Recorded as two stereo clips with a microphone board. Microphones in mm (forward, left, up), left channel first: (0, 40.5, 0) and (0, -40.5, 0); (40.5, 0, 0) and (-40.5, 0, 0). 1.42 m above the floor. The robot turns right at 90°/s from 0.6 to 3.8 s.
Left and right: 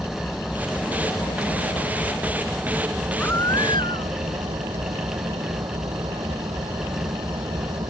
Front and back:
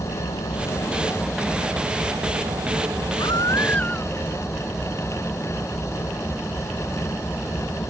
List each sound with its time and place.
0.0 s an engine running: 5° left; by 7.9 s 70° right
3.2 s a baby crying: 20° left; by 4.2 s 75° left